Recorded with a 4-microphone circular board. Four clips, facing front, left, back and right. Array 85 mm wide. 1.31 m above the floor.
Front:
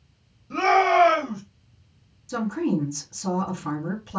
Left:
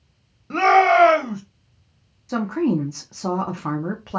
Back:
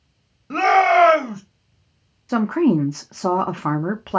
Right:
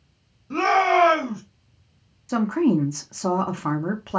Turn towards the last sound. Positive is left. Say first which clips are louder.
# right 1 dB, back 8 dB
turn(degrees=-175)